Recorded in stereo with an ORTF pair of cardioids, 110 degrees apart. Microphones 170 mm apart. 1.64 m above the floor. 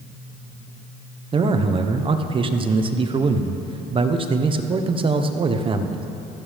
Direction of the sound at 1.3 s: 30° right.